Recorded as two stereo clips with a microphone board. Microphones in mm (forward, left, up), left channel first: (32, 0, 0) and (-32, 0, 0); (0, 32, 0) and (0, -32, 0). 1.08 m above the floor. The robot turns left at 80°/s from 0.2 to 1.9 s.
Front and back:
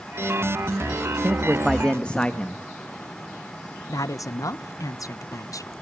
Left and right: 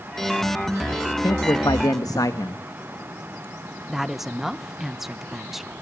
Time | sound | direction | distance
1.2 | a man speaking | 125° left | 1.2 m
3.9 | a woman speaking | straight ahead | 0.6 m